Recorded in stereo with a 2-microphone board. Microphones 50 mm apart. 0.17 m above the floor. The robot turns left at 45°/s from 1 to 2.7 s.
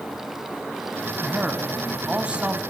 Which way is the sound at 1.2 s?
15° right (ahead or behind).